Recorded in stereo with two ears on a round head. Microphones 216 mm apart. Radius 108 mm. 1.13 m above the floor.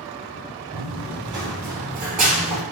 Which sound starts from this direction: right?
Running footsteps, at 0.7 s.